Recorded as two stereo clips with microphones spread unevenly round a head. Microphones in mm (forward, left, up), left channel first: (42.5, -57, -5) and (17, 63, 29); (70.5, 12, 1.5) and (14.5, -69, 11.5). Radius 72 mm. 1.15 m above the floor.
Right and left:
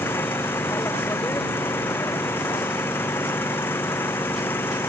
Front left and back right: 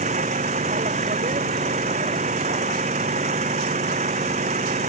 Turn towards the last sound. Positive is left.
turn(degrees=-155)